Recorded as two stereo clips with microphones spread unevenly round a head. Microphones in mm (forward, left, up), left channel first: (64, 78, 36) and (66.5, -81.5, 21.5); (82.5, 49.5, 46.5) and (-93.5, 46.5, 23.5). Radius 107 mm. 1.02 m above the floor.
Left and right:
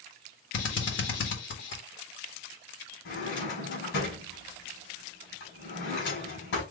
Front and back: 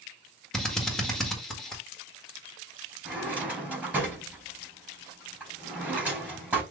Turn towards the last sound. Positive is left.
turn(degrees=100)